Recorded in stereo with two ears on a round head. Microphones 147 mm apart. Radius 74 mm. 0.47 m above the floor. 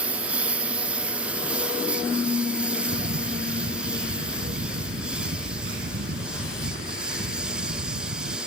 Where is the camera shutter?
60° right (ahead or behind).